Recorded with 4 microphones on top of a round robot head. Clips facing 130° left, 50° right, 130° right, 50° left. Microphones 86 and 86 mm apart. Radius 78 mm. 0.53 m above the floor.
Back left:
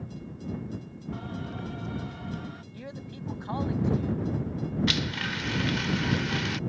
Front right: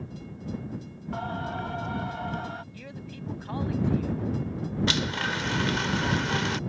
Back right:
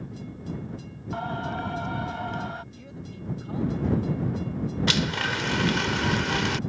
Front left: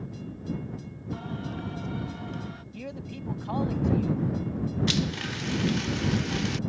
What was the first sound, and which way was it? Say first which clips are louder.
Singing: front right 6 dB, back right 6 dB; 90° right.